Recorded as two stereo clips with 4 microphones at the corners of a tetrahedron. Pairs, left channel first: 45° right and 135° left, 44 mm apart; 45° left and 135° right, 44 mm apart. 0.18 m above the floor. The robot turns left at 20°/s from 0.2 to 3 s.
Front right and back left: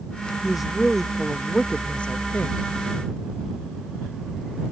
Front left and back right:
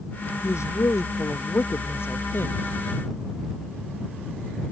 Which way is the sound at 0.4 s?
50° left.